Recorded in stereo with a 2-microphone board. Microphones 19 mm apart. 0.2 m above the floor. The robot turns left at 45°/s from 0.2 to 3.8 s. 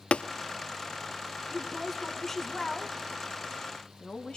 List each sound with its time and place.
0.1 s tapping: 75° left (ahead or behind), 0.7 m
1.5 s a woman speaking: 160° right, 2.5 m; by 4.4 s 95° left, 2.5 m